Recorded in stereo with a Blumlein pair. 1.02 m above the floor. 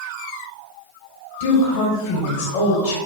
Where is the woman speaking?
55° left, 1.3 m.